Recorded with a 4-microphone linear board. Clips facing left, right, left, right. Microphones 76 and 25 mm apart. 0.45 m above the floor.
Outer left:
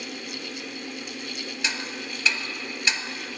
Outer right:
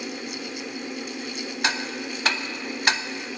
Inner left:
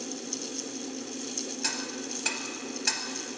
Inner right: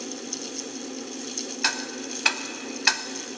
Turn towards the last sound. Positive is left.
turn(degrees=-55)  # may be behind; listen again after turning